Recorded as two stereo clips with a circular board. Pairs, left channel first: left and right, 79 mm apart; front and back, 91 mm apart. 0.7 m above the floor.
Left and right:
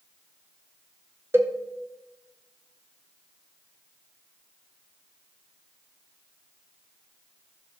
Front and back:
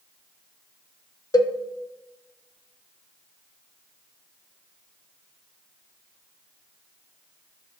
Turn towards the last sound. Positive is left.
turn(degrees=-35)